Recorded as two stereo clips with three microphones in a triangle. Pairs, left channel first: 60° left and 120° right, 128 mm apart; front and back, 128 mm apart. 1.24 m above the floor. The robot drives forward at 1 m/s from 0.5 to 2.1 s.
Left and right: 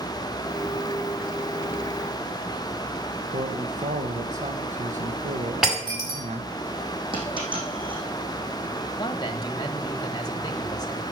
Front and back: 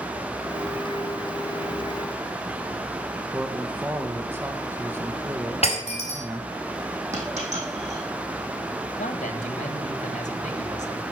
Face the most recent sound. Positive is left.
turn(degrees=5)